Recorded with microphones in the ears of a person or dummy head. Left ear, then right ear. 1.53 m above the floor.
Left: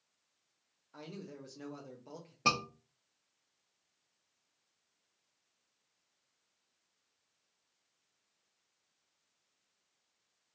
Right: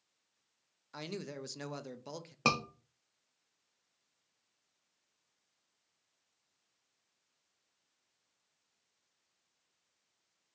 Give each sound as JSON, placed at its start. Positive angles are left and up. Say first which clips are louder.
{"t": 0.9, "sound": "a man speaking", "louder": "right 6 dB", "side_deg": -60, "distance_m": 0.5}
{"t": 2.5, "sound": "a scream", "louder": "even", "side_deg": -35, "distance_m": 0.5}